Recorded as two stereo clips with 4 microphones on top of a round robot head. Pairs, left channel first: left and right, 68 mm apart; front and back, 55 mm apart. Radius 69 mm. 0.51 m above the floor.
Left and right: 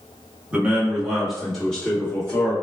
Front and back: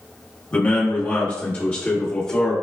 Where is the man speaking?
40° right, 1.2 m; by 2.5 s 60° left, 1.3 m.